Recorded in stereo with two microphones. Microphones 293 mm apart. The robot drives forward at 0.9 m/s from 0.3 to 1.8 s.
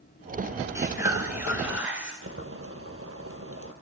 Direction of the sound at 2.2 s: 50° right (ahead or behind).